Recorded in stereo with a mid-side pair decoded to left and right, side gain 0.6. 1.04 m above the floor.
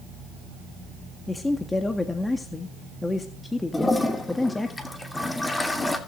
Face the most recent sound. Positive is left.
turn(degrees=15)